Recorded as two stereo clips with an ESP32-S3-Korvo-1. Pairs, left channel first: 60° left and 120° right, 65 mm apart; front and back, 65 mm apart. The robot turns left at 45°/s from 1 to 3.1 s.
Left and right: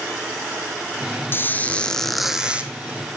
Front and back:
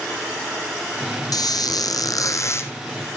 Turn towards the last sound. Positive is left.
turn(degrees=-70)